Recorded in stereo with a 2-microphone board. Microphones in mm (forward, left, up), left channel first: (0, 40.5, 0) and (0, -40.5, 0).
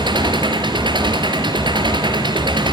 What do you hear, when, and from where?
0.0 s an engine running: 70° right (ahead or behind), 3 m